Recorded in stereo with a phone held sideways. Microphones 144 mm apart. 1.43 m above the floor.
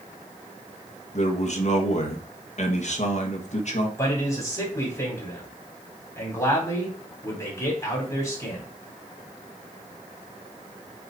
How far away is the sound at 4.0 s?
About 4 m.